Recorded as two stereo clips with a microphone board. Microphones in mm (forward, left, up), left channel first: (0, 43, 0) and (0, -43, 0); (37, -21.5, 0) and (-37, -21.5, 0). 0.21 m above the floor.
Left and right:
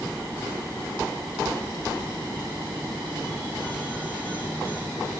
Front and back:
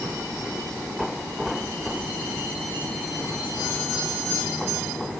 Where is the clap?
No clap in this recording.